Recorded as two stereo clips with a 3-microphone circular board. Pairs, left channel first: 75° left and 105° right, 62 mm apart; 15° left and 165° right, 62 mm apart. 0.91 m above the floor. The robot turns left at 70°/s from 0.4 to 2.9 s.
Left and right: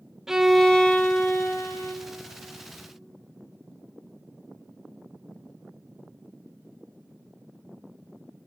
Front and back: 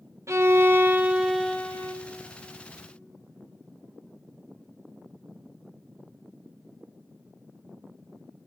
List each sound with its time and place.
0.3 s a violin: 175° left, 0.7 m; by 1.9 s 65° left, 0.7 m